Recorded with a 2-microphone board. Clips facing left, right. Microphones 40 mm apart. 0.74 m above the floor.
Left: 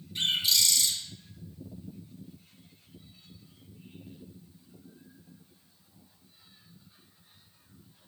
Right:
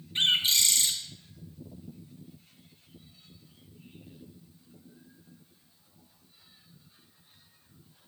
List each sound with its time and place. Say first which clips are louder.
0.1 s a bird: right 3 dB; 45° right (ahead or behind), 1.3 m